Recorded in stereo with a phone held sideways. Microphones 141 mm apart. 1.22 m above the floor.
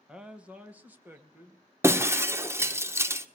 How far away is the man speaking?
About 1.6 m.